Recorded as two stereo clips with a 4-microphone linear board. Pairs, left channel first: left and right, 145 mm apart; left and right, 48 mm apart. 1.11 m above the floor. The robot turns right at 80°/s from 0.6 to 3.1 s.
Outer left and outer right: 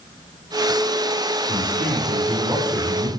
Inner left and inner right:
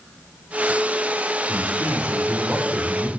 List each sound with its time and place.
1.5 s a man speaking: 105° right, 3.5 m; by 3.1 s 25° left, 3.5 m